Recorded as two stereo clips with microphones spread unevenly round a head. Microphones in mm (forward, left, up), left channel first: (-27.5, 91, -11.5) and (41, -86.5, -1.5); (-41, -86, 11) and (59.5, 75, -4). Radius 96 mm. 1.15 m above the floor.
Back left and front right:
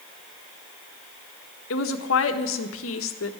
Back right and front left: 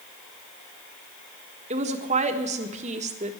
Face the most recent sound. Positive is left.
turn(degrees=110)